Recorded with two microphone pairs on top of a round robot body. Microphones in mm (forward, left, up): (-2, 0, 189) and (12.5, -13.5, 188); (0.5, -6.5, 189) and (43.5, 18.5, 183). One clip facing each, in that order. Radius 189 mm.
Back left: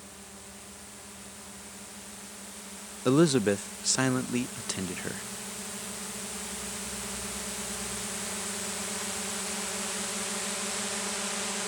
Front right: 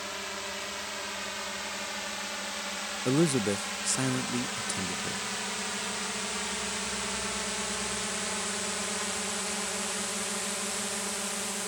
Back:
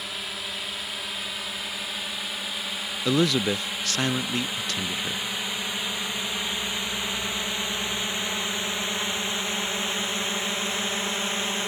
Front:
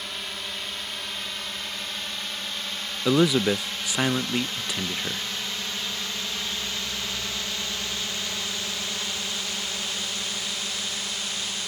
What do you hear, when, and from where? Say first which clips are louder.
0.0 s a drone: front right 12 dB, back 1 dB; 60° right; by 11.7 s 150° right
3.0 s a man speaking: back left 4 dB, front 2 dB; 85° left